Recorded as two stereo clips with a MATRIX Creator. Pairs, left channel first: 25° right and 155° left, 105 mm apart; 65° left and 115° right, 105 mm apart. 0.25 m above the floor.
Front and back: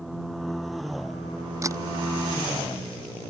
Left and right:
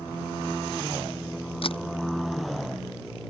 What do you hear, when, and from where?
1.6 s a camera shutter: 100° left